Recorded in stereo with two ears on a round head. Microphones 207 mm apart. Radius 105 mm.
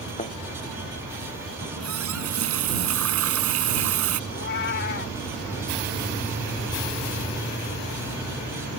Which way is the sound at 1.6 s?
70° right (ahead or behind).